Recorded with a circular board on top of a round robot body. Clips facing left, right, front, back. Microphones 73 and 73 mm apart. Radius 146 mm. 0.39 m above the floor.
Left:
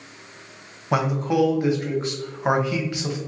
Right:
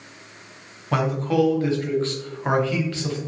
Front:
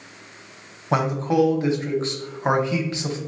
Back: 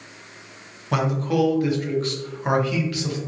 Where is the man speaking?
30° left, 0.9 m.